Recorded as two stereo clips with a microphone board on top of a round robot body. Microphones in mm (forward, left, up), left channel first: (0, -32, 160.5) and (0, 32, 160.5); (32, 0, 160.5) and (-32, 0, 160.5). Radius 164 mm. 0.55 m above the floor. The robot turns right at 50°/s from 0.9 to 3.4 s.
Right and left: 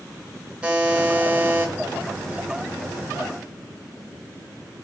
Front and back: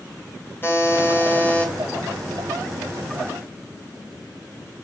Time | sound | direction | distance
0.6 | a buzzer | 25° left | 1.2 m